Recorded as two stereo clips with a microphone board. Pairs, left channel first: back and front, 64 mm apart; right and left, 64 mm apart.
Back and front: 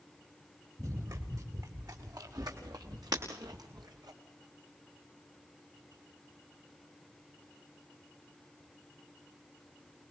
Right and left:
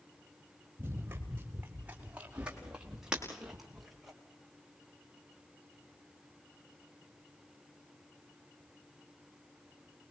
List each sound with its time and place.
0.8 s running footsteps: 35° left, 5 m; by 4.1 s straight ahead, 5 m
3.1 s breaking glass: 15° left, 5 m